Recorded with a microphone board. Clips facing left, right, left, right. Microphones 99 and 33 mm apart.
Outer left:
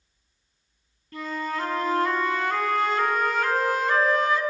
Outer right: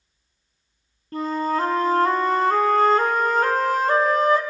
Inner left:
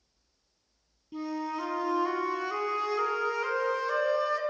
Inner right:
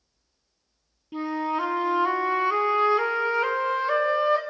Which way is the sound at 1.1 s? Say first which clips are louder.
Outer right 7 dB, inner right 7 dB; 40° right (ahead or behind).